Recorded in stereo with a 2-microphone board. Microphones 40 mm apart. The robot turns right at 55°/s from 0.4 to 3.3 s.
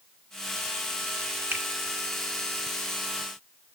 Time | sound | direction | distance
1.5 | a finger snap | 60° right (ahead or behind) | 1.8 m